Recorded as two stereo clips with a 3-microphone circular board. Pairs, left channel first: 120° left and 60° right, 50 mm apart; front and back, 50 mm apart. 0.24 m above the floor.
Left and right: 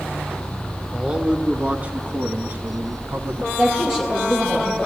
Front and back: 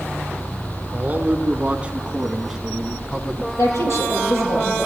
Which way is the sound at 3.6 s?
15° left.